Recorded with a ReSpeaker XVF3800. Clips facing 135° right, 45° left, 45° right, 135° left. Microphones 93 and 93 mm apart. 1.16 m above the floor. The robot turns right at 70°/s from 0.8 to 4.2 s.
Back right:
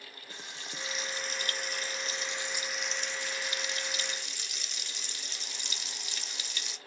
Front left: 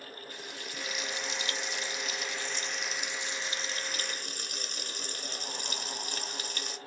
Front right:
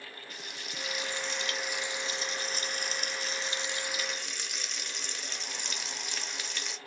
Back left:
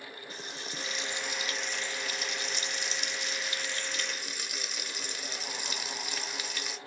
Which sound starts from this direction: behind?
Frying, at 0.3 s.